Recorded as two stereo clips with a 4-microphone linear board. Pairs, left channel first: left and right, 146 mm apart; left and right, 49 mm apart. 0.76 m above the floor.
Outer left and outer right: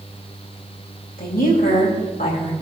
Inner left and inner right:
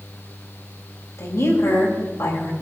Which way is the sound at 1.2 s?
80° left.